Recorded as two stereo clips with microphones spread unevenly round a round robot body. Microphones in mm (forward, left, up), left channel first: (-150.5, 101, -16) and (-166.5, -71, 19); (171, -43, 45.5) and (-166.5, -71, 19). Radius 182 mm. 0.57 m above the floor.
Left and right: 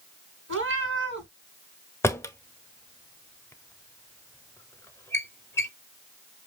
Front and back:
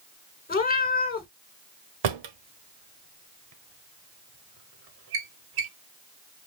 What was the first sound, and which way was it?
A cat meowing, 60° right.